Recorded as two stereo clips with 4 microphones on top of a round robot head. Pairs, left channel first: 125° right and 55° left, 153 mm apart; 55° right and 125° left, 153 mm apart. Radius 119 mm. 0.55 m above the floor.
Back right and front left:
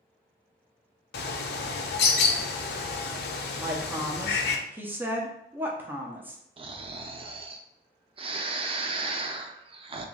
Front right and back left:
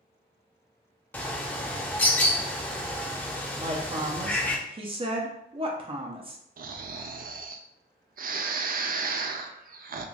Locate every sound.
1.1 s a bird: 135° right, 0.5 m
3.6 s a woman speaking: 125° left, 0.8 m
6.6 s snoring: 105° left, 0.5 m